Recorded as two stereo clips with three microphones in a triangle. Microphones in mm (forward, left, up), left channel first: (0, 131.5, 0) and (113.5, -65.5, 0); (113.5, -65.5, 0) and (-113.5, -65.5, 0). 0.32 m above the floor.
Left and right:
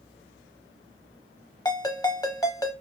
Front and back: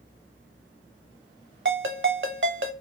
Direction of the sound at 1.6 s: 170° right.